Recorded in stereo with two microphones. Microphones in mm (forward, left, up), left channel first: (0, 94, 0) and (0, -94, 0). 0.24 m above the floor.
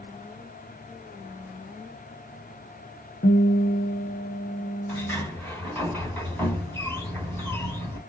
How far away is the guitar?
About 1.2 m.